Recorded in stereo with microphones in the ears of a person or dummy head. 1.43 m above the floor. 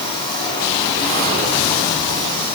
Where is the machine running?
30° left (ahead or behind), 10 m.